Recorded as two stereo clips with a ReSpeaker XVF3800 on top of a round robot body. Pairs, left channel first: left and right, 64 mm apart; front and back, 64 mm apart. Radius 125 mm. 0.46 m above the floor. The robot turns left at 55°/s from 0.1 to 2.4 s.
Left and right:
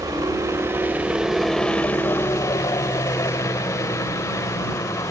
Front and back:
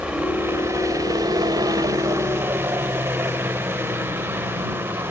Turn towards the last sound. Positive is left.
turn(degrees=125)